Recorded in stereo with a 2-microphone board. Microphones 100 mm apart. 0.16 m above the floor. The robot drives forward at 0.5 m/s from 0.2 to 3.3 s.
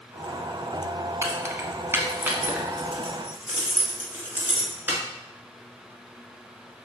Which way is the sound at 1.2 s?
25° right (ahead or behind).